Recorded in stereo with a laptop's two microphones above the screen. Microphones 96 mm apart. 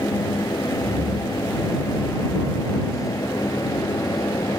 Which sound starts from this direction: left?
A fan, at 0.0 s.